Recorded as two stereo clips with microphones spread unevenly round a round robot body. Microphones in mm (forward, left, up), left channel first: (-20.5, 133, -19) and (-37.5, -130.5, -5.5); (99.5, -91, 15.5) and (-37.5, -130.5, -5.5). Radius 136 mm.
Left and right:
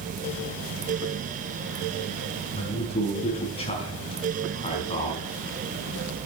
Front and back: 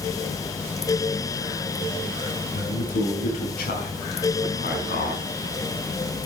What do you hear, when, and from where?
2.5 s a man speaking: 15° left, 5 m